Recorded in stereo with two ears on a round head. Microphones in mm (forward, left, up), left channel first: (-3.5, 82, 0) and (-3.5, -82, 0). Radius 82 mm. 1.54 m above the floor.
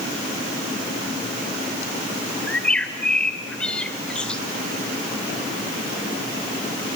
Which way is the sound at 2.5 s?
5° left (ahead or behind).